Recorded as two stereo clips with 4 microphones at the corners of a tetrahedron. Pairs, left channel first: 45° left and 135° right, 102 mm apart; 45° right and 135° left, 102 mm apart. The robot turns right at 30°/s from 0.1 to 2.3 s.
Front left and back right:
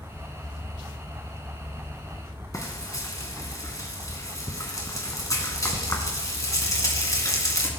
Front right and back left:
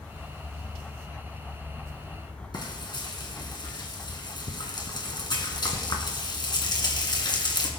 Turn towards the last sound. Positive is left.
turn(degrees=-10)